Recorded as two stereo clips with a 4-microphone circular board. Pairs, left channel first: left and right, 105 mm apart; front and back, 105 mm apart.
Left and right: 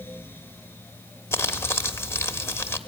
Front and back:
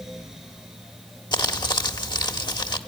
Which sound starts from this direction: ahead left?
Crumpling, at 1.3 s.